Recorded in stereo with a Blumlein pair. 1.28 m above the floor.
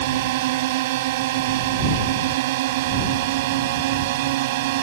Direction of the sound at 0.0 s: 50° right.